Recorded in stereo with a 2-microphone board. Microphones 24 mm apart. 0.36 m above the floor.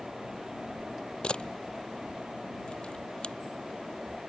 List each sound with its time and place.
1.2 s a camera shutter: 45° left (ahead or behind)